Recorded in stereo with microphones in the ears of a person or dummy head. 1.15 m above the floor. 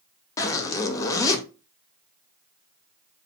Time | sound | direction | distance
0.4 | a zipper | 20° left (ahead or behind) | 0.5 m